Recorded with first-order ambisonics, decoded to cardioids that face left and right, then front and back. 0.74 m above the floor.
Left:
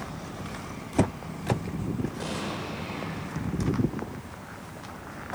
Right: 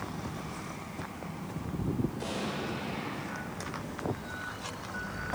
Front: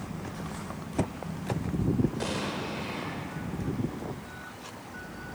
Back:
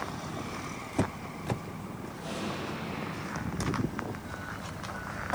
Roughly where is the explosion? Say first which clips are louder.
Left 2 dB, front 3 dB; ahead.